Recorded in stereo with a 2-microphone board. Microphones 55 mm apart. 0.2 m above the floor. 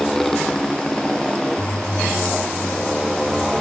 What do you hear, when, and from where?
0.0 s a motorcycle: 5° left (ahead or behind); by 3.6 s centre (ahead or behind)